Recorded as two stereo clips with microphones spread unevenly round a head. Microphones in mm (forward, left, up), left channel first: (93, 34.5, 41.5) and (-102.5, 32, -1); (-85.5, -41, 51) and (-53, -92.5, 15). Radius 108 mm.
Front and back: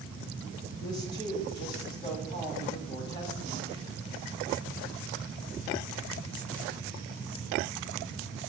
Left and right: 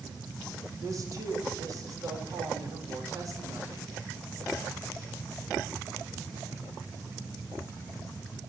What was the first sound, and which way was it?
A woman speaking, 75° right.